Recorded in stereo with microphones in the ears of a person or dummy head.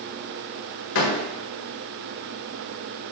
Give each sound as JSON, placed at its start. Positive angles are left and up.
{"t": 0.9, "sound": "a door slam", "side_deg": 70, "distance_m": 1.5}